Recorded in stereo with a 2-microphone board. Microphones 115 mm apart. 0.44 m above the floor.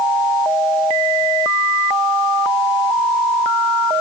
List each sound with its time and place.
Only background noise.